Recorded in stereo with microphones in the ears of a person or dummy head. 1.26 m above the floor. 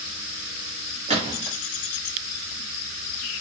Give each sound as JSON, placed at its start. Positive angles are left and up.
{"t": 1.1, "sound": "a gunshot", "side_deg": -30, "distance_m": 1.2}